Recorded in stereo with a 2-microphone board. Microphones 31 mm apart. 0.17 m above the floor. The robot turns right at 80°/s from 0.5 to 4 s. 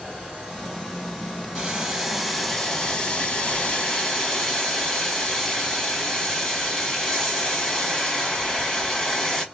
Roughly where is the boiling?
Right.